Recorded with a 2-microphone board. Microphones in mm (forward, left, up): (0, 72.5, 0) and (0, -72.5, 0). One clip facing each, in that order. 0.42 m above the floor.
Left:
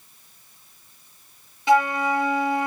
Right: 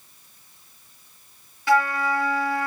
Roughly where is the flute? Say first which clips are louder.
Left 2 dB; left.